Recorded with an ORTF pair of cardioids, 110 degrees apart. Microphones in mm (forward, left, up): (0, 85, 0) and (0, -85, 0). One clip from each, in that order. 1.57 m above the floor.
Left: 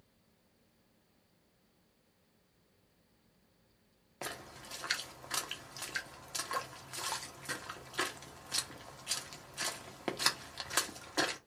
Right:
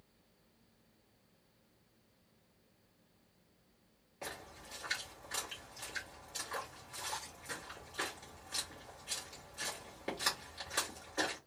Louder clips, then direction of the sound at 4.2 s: Left 3 dB; 60° left.